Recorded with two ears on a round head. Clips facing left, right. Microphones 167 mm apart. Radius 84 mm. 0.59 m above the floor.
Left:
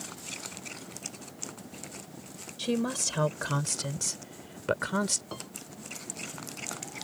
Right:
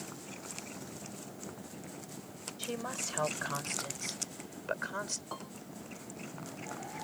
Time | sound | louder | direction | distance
2.6 | a woman speaking | left 10 dB | 45° left (ahead or behind) | ?
5.3 | a piano | left 2 dB | 30° left (ahead or behind) | ?